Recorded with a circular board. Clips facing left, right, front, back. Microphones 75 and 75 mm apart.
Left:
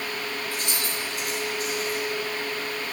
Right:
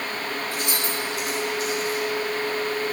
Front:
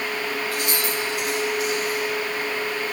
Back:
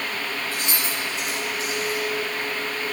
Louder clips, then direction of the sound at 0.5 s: Right 3 dB, front 3 dB; 125° left.